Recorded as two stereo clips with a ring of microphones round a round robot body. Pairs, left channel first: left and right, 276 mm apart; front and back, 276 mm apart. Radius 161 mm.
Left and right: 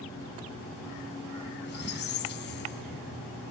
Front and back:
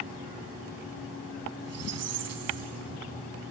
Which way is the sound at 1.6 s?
145° left.